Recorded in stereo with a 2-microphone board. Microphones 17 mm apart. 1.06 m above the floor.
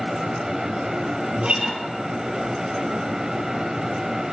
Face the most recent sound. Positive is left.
turn(degrees=-75)  # may be behind; listen again after turning